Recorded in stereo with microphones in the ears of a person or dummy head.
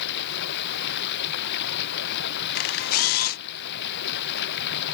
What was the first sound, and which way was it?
Running water, 60° left (ahead or behind).